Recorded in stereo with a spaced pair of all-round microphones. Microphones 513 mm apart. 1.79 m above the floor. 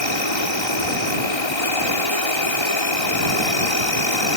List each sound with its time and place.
0.0 s an insect: 60° left (ahead or behind)